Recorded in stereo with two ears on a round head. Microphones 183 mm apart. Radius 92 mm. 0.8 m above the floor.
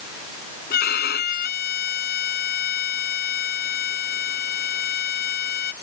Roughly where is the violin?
Left.